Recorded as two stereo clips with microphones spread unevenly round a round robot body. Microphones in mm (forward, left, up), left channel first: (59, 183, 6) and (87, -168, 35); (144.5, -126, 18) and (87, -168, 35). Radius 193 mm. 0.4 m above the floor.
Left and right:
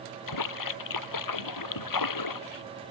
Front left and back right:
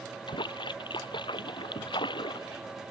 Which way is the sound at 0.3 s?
65° left.